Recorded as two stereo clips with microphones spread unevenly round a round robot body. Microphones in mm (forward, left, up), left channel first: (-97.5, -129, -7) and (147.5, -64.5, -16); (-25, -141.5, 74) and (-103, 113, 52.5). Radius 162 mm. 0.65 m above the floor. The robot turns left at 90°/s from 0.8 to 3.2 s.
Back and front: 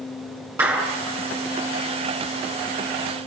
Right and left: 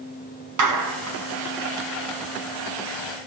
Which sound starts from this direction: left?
A clap, at 0.6 s.